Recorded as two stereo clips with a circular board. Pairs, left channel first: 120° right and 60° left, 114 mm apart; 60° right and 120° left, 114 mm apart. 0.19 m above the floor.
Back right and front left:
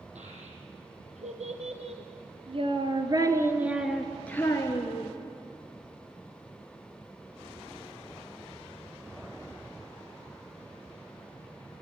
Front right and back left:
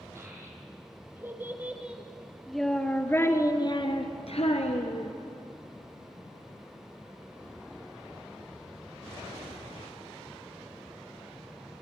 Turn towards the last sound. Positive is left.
turn(degrees=-65)